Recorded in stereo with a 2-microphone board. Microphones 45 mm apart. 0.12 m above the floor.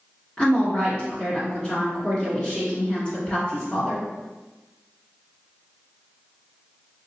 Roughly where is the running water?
I don't hear running water.